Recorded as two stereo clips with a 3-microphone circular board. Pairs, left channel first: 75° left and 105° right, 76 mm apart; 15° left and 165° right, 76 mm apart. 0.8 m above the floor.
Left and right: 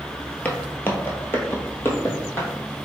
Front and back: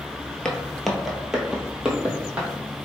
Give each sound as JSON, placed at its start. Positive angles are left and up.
{"t": 0.5, "sound": "footsteps", "azimuth_deg": 75, "distance_m": 0.8}